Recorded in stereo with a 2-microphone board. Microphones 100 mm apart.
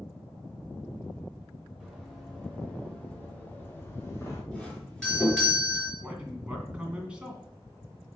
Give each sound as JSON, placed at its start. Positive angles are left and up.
{"t": 1.8, "sound": "running footsteps", "side_deg": 0, "distance_m": 3.5}
{"t": 4.5, "sound": "a doorbell", "side_deg": 10, "distance_m": 3.5}
{"t": 6.0, "sound": "a man speaking", "side_deg": -10, "distance_m": 2.0}